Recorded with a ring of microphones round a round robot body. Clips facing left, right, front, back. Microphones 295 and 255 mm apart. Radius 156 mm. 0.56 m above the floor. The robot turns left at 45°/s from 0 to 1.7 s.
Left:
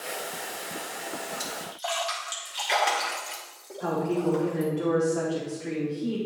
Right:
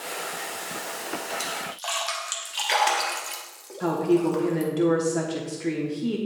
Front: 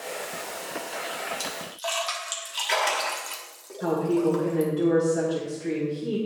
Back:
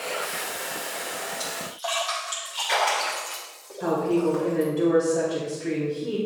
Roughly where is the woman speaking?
Right.